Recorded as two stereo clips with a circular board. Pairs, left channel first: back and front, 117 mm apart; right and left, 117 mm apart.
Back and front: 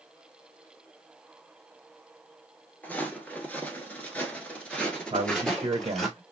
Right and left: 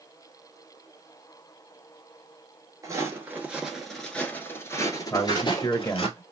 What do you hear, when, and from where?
2.8 s footsteps: 115° left, 1.1 m; by 6.1 s 95° right, 1.5 m
5.1 s a man speaking: 25° right, 1.3 m